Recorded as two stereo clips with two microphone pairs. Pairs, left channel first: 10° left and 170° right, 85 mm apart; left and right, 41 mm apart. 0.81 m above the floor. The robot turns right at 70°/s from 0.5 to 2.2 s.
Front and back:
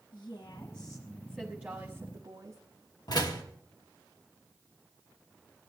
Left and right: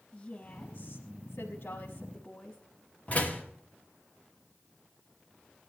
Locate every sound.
0.1 s a woman speaking: 40° left, 1.2 m; by 2.6 s 155° left, 1.2 m
3.1 s a door slam: 45° left, 1.5 m